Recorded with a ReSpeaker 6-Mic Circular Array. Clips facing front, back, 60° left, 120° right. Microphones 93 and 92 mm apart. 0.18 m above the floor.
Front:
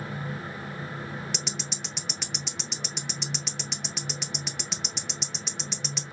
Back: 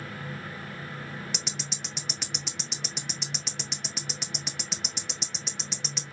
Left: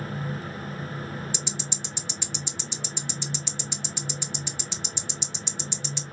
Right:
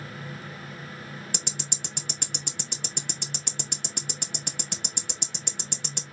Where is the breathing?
I don't hear breathing.